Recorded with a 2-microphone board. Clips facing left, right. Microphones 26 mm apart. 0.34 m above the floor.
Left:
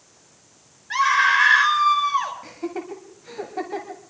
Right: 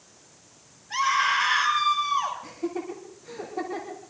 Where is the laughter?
30° left (ahead or behind), 1.5 m.